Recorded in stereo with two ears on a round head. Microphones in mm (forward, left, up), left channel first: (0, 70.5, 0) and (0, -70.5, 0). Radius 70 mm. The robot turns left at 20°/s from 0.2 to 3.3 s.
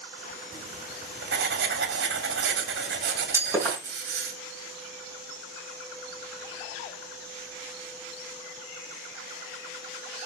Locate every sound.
0.5 s writing: 55° right, 2 m; by 4.3 s 115° right, 2 m
3.3 s breaking glass: 15° right (ahead or behind), 5.5 m